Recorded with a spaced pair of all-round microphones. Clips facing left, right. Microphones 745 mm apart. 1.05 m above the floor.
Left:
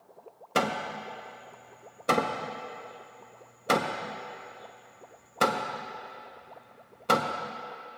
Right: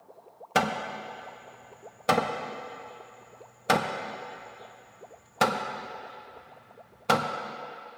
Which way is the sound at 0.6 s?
30° right (ahead or behind).